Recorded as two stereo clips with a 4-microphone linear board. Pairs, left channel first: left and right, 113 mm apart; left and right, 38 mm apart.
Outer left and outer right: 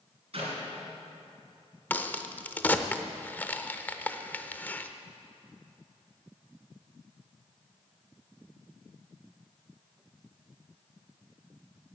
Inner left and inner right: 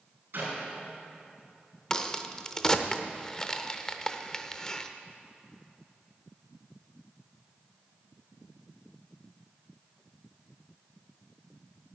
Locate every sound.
0.3 s a clap: 60° right (ahead or behind), 4.5 m
1.9 s a crack: 15° left (ahead or behind), 0.6 m